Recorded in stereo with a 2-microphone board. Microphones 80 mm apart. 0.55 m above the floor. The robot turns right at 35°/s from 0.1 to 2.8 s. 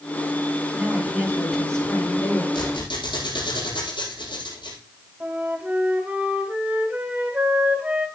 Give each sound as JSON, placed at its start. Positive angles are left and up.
{"t": 0.8, "sound": "a woman speaking", "azimuth_deg": -25, "distance_m": 10.0}
{"t": 2.5, "sound": "a squeak", "side_deg": 70, "distance_m": 9.0}
{"t": 5.2, "sound": "a flute", "side_deg": -20, "distance_m": 3.5}